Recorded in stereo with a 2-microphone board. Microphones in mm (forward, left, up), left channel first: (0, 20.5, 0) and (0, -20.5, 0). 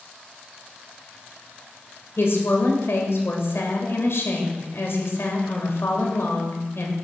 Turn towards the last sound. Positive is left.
turn(degrees=70)  # may be behind; listen again after turning